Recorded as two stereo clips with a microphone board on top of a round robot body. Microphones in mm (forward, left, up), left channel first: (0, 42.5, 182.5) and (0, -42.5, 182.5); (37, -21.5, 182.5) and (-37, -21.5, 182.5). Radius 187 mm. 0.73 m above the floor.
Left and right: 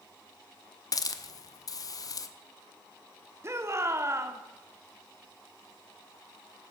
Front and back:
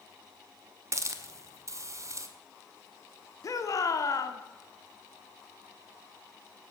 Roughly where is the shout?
Ahead right.